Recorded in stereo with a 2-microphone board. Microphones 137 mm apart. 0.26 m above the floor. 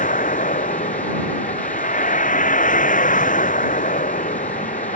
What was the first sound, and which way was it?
A vehicle, 80° left.